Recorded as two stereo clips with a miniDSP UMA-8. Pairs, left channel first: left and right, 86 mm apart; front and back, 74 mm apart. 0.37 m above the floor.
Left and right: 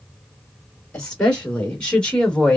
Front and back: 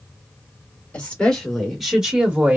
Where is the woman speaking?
40° left, 1.3 m; by 2.6 s 160° left, 1.3 m.